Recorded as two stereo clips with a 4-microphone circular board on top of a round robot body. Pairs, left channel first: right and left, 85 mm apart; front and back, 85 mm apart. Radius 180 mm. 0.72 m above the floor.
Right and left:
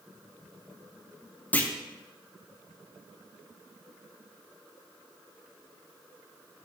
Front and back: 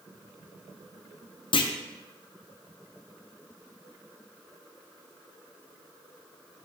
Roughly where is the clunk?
Ahead.